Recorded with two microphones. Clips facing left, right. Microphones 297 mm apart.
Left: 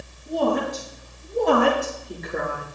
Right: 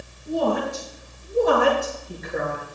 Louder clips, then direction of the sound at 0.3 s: Even; 10° right (ahead or behind).